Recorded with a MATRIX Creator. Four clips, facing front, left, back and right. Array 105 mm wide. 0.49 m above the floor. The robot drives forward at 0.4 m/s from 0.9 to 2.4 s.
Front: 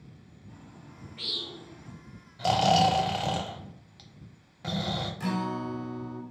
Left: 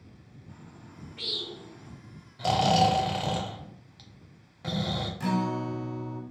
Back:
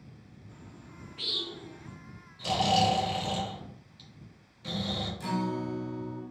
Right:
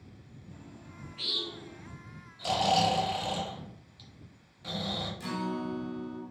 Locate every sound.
0.5 s a bird: 55° left, 1.4 m; by 1.9 s 70° left, 1.2 m
2.4 s snoring: 40° left, 0.5 m
5.2 s a guitar: 50° left, 0.6 m